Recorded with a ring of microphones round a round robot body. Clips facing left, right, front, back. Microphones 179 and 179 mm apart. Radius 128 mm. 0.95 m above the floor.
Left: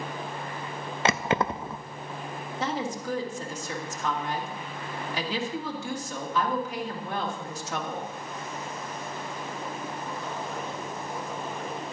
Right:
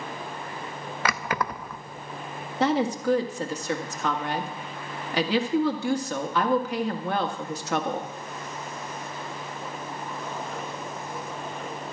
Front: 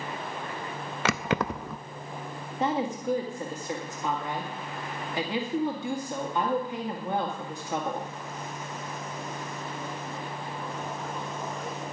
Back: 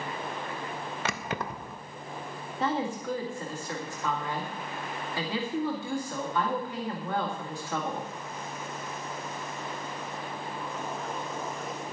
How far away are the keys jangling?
About 0.6 m.